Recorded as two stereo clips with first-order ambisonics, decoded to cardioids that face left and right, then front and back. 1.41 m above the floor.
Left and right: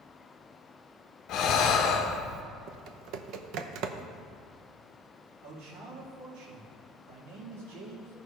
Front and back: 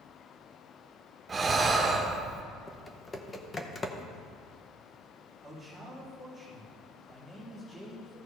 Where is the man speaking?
85° right, 3 m.